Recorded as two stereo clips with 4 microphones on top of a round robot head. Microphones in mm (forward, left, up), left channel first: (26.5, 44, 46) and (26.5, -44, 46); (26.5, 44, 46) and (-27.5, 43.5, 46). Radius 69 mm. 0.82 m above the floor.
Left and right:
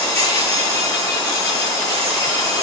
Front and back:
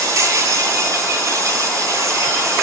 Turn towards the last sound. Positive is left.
turn(degrees=155)